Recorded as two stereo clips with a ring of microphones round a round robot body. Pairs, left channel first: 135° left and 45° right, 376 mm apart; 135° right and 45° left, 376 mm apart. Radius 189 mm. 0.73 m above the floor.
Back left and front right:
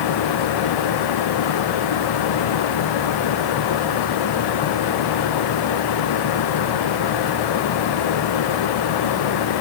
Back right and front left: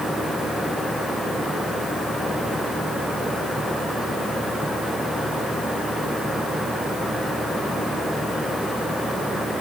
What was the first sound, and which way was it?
Only background noise.